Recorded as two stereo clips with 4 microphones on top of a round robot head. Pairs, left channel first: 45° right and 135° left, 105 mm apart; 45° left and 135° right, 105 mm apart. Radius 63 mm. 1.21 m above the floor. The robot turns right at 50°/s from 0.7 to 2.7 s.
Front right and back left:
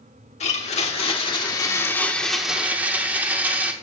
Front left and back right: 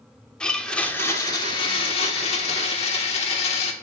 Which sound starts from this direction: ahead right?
A blender, at 0.4 s.